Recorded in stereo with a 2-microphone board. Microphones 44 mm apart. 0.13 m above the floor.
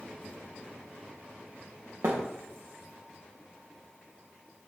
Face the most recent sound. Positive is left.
turn(degrees=-80)